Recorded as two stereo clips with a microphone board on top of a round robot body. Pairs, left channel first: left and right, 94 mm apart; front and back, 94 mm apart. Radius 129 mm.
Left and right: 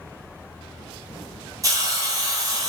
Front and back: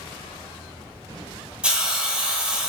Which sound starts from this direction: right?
A hiss, at 1.6 s.